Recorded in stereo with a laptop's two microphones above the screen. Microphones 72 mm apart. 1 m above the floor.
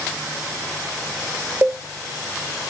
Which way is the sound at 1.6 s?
30° right (ahead or behind).